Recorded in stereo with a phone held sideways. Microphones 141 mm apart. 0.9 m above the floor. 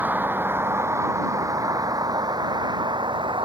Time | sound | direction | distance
0.0 | a vehicle | 15° right (ahead or behind) | ?